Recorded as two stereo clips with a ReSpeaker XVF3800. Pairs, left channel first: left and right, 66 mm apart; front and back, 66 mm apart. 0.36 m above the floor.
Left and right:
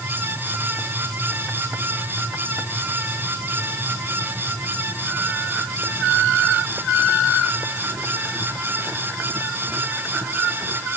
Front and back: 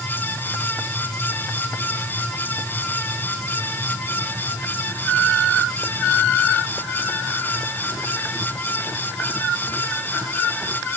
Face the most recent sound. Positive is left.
No sound to turn to.